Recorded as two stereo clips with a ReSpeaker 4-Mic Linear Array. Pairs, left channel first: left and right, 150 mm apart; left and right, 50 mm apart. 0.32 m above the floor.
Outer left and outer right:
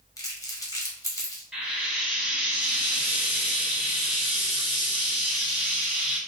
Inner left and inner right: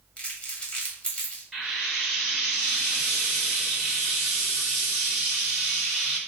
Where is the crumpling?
25° left (ahead or behind), 1.5 m.